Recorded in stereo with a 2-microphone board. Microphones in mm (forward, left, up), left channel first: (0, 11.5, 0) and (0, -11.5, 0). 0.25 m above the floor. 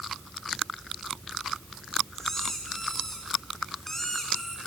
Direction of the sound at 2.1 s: 15° left (ahead or behind).